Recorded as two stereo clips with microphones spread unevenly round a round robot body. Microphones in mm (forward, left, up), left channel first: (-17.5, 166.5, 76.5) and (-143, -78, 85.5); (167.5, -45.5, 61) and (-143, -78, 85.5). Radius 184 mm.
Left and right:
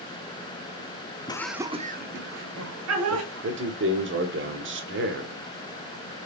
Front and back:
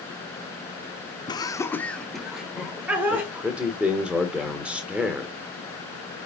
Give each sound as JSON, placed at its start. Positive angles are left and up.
{"t": 1.3, "sound": "laughter", "azimuth_deg": 35, "distance_m": 0.8}
{"t": 3.1, "sound": "a man speaking", "azimuth_deg": -85, "distance_m": 1.4}